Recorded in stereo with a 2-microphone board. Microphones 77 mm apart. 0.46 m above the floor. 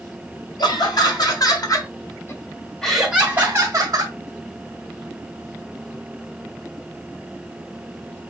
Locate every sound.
0.6 s laughter: 65° left (ahead or behind), 2 m; by 4.2 s 45° right (ahead or behind), 1.3 m